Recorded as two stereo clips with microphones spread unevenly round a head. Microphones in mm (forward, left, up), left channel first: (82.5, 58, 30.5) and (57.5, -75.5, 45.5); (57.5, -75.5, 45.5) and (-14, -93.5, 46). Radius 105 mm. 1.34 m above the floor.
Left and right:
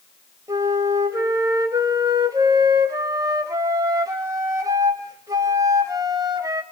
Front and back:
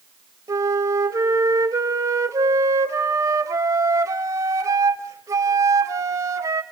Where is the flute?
160° right, 1.4 m.